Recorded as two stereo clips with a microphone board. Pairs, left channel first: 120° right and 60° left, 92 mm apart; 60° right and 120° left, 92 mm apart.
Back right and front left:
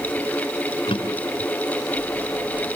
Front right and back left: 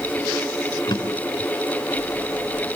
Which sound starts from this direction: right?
A drawer, at 0.9 s.